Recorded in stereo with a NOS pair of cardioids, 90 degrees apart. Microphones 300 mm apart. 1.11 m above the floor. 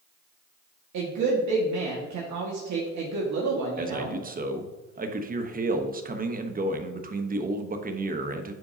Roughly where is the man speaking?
Ahead right.